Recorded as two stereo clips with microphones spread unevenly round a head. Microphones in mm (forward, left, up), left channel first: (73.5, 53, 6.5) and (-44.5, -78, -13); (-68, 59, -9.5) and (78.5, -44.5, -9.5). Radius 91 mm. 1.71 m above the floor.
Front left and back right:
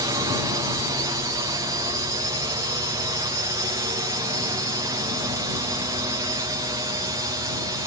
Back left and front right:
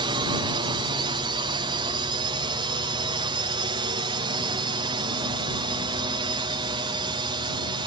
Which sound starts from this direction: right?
A drone, at 0.0 s.